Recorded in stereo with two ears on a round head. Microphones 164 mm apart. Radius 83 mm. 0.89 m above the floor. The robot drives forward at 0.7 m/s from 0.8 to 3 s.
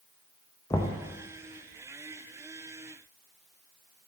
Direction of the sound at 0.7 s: 15° left (ahead or behind).